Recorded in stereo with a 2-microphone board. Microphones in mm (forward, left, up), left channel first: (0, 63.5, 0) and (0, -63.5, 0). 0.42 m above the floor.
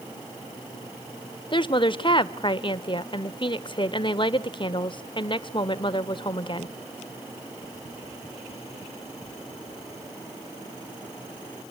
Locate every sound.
1.5 s a woman speaking: 40° left (ahead or behind), 1.1 m